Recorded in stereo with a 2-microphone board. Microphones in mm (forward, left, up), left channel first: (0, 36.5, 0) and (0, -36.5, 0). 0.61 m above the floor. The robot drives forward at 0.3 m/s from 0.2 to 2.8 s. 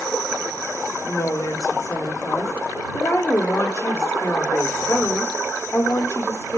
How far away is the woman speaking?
About 1.5 m.